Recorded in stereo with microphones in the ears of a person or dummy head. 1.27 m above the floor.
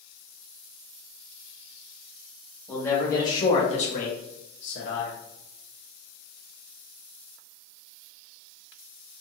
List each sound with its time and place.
2.7 s a man speaking: 10° left (ahead or behind), 1.5 m; by 5.1 s 65° left (ahead or behind), 1.1 m